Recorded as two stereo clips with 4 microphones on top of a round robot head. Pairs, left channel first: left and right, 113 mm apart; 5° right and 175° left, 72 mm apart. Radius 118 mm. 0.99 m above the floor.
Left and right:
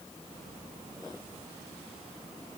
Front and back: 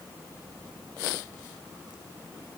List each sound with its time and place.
Only background noise.